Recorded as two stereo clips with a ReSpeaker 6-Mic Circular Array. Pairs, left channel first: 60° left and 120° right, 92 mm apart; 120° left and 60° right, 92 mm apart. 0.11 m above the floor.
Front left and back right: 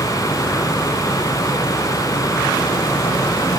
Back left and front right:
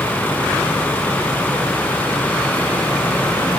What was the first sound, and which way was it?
Only background noise.